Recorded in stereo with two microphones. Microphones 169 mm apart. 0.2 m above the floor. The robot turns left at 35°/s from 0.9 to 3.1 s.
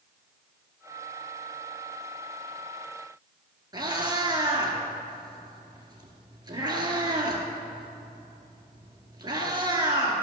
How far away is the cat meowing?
About 1.9 m.